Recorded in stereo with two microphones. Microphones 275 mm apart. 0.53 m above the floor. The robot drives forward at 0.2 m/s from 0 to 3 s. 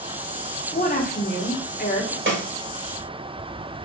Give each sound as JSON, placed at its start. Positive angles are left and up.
{"t": 0.7, "sound": "a woman speaking", "side_deg": 30, "distance_m": 1.2}
{"t": 2.3, "sound": "a snare drum", "side_deg": -45, "distance_m": 1.0}